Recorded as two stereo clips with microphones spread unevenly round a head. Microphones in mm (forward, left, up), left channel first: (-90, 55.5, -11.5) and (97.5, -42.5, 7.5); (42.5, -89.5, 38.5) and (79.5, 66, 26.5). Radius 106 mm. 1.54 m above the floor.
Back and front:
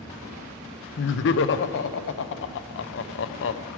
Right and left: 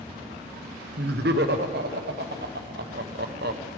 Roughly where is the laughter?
Behind left.